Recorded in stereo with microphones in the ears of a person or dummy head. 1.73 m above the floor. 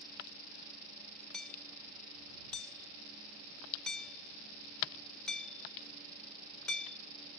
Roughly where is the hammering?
Centre.